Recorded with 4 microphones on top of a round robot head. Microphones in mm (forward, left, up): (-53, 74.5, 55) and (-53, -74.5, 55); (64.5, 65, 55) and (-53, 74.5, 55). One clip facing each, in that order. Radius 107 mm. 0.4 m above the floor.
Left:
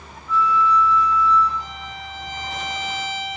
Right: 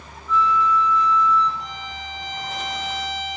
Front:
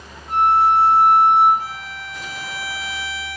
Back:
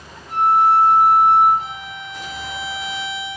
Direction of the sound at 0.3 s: 10° left.